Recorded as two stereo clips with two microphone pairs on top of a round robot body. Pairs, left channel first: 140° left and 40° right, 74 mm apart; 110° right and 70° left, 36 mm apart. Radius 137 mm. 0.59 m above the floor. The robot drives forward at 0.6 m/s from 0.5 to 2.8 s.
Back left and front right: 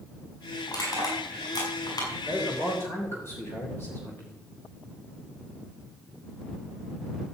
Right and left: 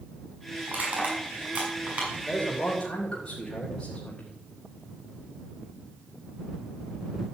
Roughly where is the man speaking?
Behind.